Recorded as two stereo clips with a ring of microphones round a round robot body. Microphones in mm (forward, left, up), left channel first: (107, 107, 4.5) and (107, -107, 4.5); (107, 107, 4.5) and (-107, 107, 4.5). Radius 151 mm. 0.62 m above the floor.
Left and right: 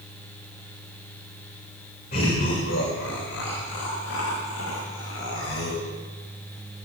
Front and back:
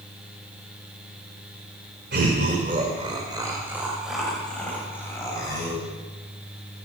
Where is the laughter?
150° left, 2.5 m; by 5.8 s 70° left, 5.5 m.